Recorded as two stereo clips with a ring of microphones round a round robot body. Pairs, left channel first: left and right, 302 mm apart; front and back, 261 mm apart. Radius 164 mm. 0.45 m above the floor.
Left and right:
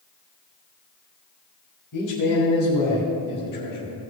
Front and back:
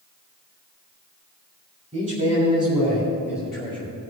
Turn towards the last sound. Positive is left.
turn(degrees=75)